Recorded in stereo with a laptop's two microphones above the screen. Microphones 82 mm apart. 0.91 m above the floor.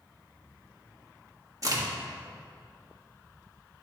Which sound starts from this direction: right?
A crack, at 1.6 s.